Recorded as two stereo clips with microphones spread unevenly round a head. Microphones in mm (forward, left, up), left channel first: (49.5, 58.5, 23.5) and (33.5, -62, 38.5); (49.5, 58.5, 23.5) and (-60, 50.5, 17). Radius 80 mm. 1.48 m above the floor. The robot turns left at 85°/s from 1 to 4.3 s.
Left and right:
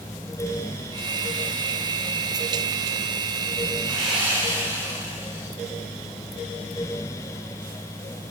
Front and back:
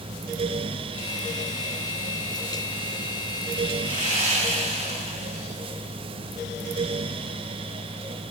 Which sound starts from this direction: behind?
Sawing, at 3.8 s.